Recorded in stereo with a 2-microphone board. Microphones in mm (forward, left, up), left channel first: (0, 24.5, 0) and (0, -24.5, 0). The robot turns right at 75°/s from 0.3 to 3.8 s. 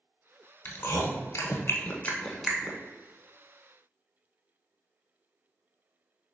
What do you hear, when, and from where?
0.7 s chewing: 45° left (ahead or behind), 0.5 m; by 2.8 s 25° right (ahead or behind), 0.5 m